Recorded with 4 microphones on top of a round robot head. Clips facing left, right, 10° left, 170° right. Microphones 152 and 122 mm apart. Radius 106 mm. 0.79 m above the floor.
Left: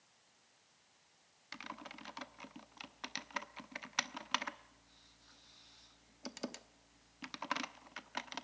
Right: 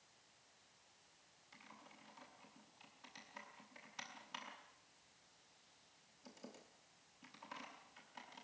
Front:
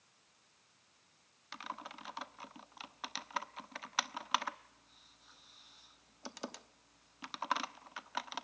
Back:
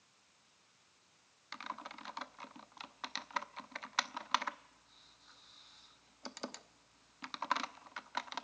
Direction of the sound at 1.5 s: 95° left.